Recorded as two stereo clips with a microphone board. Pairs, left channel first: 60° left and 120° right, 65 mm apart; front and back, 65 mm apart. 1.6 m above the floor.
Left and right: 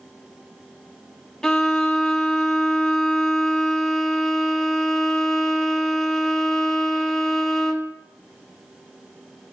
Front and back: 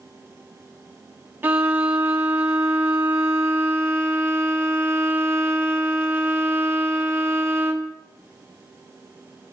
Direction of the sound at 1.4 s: 135° left.